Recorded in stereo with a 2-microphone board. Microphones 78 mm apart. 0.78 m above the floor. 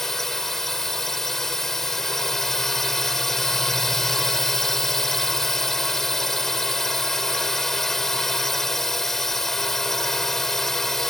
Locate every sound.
0.0 s a drone: 5° left (ahead or behind)